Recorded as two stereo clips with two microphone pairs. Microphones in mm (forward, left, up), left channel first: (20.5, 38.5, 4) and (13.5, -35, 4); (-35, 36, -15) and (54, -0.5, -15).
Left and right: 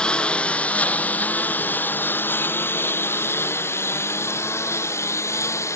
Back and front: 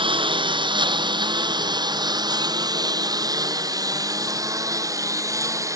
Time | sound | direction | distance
0.0 | a lawn mower | 5° left | ?